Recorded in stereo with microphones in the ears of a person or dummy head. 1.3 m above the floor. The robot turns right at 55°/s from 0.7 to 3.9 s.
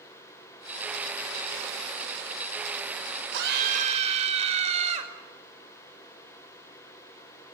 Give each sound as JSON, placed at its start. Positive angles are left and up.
{"t": 3.3, "sound": "a scream", "azimuth_deg": -65, "distance_m": 5.5}